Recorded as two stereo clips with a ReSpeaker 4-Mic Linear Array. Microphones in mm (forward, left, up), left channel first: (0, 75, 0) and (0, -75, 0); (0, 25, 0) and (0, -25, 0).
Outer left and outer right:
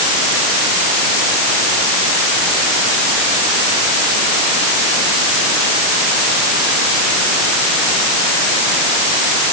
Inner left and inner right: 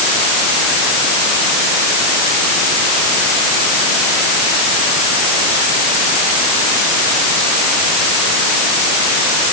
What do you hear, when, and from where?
Only background noise.